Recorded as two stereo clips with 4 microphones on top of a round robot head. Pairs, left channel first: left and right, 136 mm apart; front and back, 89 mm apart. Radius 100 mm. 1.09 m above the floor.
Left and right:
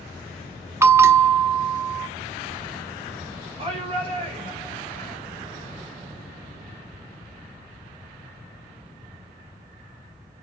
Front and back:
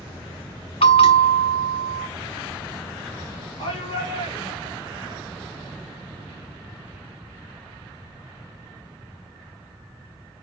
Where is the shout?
40° right, 7 m.